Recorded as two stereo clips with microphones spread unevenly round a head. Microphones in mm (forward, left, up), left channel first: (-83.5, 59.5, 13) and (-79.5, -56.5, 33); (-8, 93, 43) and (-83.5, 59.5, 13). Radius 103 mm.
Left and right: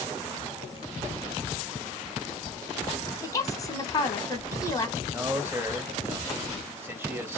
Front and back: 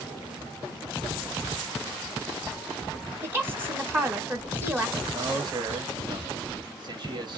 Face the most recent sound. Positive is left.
turn(degrees=-160)